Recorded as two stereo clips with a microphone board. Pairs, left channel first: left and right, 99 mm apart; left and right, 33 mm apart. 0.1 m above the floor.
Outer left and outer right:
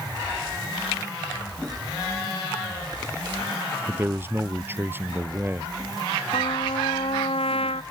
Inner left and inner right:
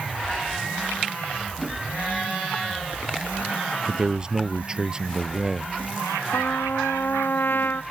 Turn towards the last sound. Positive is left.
turn(degrees=80)